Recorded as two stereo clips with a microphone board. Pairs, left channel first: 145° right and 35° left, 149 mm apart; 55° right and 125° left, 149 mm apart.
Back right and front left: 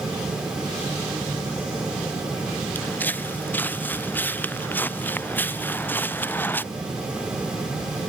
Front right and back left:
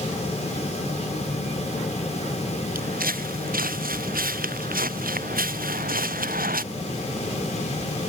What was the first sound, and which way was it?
Footsteps, 135° left.